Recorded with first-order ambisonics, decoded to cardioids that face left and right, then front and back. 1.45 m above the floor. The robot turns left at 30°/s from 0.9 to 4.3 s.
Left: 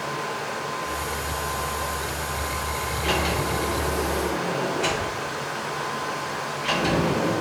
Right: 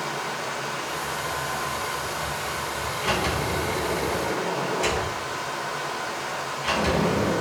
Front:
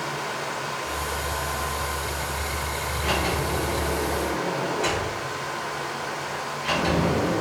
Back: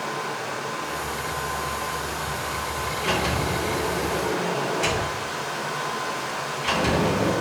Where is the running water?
70° right, 1.2 m; by 7.4 s 175° right, 1.2 m.